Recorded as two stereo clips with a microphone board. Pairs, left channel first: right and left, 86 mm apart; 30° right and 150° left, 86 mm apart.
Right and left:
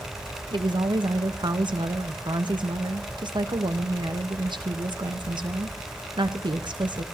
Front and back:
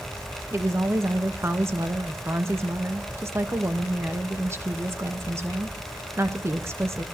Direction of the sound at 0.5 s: 95° left.